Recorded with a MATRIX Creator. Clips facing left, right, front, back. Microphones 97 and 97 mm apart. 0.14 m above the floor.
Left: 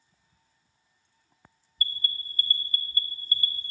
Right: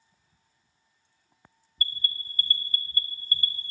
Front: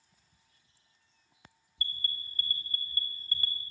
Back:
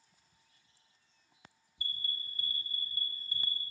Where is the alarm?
105° right, 1.1 m.